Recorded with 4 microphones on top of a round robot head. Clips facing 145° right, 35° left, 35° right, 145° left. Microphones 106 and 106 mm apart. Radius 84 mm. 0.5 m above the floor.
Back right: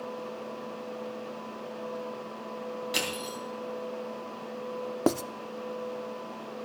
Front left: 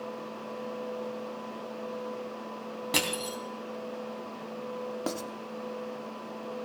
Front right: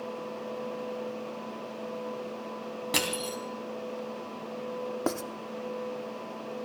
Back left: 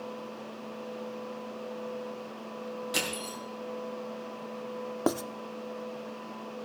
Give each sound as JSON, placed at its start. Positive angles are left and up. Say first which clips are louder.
{"t": 2.9, "sound": "crushing", "louder": "front left 2 dB, front right 3 dB", "azimuth_deg": -5, "distance_m": 3.5}
{"t": 5.1, "sound": "writing", "louder": "back right 10 dB, back left 3 dB", "azimuth_deg": -140, "distance_m": 0.7}